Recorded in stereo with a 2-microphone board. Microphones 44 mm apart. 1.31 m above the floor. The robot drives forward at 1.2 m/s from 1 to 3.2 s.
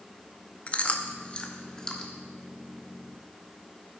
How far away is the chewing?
About 0.7 m.